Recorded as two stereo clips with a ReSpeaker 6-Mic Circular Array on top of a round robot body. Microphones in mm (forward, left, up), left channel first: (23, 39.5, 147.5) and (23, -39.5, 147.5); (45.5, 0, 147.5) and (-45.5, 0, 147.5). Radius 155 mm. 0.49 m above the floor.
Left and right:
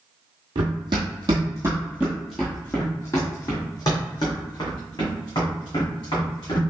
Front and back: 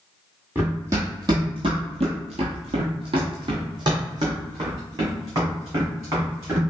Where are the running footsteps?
110° right, 1.2 m; by 6.6 s 120° left, 3 m.